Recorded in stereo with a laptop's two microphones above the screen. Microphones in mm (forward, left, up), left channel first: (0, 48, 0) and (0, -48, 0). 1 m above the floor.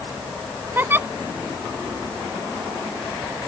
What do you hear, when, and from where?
0.8 s a giggle: 20° right (ahead or behind)